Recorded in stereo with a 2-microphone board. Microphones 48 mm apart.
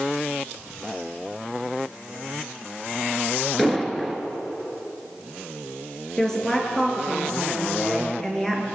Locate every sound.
3.6 s an explosion: 5° left (ahead or behind), 1.5 m
6.2 s a woman speaking: 10° left (ahead or behind), 3 m